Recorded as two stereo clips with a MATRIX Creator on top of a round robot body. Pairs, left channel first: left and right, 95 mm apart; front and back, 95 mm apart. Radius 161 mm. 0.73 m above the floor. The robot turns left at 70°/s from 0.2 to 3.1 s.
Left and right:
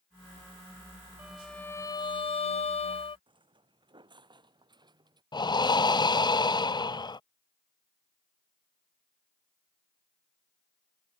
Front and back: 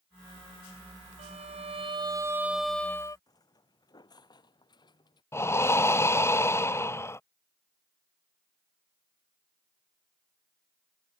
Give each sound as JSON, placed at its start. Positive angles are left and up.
{"t": 1.2, "sound": "a violin", "azimuth_deg": -165}
{"t": 3.3, "sound": "footsteps", "azimuth_deg": -55}
{"t": 5.3, "sound": "breathing", "azimuth_deg": 60}